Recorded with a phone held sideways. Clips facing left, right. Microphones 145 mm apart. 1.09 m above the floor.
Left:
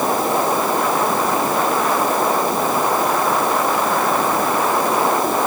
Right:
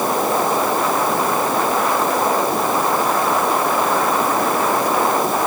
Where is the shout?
No shout in this recording.